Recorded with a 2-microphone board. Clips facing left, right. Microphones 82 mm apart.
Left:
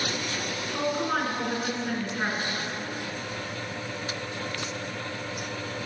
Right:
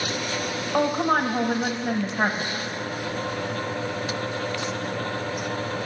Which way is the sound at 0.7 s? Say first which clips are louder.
Right 6 dB; 60° right (ahead or behind).